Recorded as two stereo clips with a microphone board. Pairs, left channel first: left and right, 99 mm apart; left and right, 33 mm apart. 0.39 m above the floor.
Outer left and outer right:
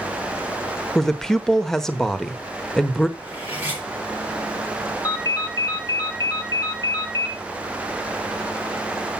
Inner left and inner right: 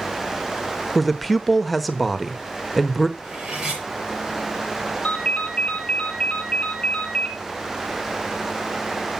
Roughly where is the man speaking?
Centre.